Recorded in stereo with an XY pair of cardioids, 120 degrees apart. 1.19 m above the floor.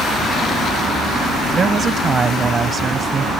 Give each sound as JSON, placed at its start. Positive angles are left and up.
{"t": 1.5, "sound": "a woman speaking", "azimuth_deg": -35}